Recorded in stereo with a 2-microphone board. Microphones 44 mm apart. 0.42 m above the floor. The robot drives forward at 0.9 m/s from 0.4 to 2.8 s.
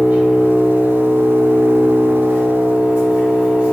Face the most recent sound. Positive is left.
turn(degrees=-30)  # may be behind; listen again after turning